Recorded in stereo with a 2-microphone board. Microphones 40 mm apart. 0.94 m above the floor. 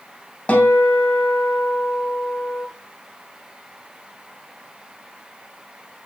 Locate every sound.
0.5 s a guitar: 35° left (ahead or behind), 3 m